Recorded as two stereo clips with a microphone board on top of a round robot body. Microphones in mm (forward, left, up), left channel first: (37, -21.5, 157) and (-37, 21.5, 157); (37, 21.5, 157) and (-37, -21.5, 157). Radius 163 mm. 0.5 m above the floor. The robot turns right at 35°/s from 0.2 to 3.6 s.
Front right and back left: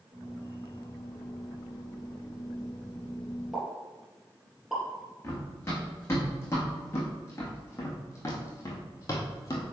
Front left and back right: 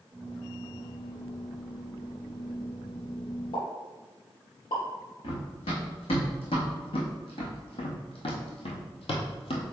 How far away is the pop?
About 3.5 m.